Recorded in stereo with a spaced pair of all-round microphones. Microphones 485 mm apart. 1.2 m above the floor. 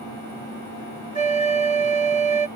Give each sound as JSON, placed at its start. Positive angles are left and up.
{"t": 1.1, "sound": "a flute", "side_deg": -75}